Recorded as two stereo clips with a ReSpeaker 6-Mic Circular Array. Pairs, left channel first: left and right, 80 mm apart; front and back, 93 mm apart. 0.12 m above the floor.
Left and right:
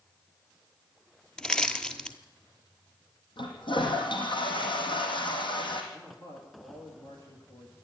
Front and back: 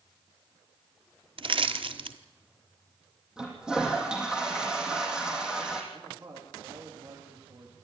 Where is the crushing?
170° left, 1.2 m.